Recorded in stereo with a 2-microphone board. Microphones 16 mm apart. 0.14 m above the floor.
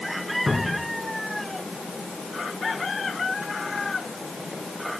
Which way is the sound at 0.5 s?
40° right (ahead or behind).